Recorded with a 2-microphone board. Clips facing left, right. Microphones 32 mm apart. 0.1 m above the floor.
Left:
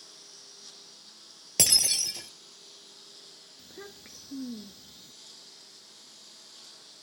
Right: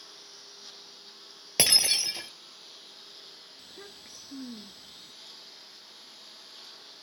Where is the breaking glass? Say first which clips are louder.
Right 2 dB; 25° right (ahead or behind).